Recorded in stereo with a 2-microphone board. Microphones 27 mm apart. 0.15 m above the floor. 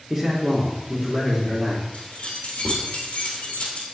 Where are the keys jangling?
70° left (ahead or behind), 3 m.